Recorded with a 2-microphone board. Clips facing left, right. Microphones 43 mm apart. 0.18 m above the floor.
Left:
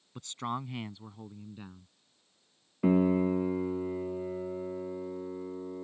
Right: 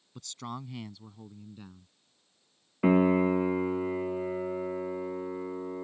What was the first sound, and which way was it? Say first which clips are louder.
A man speaking: left 4 dB; 30° left (ahead or behind).